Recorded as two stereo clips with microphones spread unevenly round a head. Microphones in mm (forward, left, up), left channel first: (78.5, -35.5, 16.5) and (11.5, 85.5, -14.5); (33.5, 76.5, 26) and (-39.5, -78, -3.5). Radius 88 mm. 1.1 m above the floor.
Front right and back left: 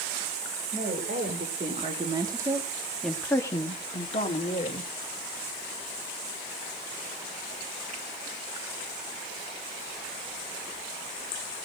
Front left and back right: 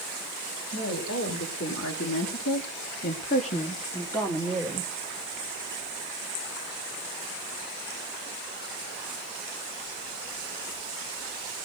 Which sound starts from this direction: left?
A woman speaking, at 0.7 s.